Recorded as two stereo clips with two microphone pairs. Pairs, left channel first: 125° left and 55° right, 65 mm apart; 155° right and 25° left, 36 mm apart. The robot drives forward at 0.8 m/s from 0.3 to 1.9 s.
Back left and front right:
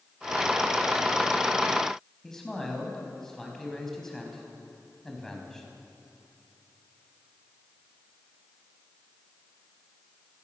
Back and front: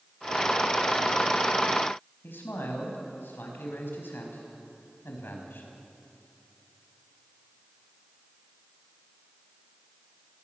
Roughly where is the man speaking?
Behind right.